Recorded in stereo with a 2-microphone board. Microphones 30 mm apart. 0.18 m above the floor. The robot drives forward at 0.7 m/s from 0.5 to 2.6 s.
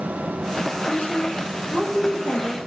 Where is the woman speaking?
60° left (ahead or behind), 7 m; by 2.6 s 65° left (ahead or behind), 6.5 m.